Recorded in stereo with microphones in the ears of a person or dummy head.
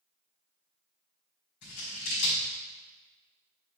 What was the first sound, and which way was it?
Scissors, 60° left (ahead or behind).